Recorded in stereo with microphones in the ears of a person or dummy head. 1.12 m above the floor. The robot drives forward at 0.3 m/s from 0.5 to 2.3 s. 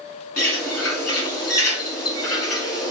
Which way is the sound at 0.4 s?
10° left (ahead or behind).